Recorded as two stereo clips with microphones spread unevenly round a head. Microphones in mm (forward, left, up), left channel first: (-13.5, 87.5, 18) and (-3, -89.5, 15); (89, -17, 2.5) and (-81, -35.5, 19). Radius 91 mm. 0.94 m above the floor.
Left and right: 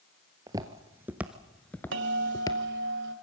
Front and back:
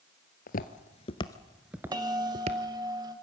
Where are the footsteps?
20° right, 1.3 m; by 2.6 s 155° left, 1.3 m.